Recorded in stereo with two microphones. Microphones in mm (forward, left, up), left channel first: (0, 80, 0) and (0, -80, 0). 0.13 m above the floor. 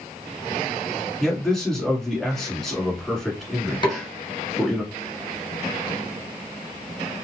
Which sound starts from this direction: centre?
A man speaking, at 1.2 s.